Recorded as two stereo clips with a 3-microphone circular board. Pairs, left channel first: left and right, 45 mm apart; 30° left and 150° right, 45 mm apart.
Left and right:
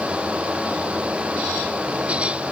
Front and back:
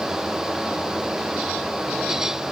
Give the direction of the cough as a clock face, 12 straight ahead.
I don't hear a cough.